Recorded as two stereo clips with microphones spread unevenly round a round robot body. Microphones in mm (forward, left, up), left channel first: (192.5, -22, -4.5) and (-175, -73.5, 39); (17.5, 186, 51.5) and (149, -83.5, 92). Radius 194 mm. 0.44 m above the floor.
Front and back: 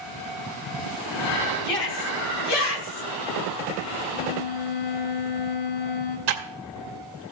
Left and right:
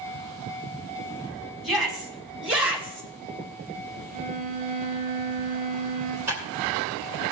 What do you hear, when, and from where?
1.6 s a shout: 25° left, 5 m
4.1 s a violin: straight ahead, 3.5 m
6.3 s typing on a keyboard: 150° right, 2 m